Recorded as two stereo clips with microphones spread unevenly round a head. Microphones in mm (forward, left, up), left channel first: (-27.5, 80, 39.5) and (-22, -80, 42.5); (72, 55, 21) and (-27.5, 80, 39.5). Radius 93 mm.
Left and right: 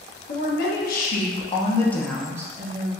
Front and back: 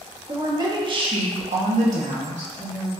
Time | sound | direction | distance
0.3 | a woman speaking | 110° left | 1.1 m